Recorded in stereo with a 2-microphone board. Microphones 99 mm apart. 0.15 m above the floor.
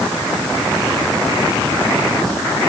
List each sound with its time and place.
Only background noise.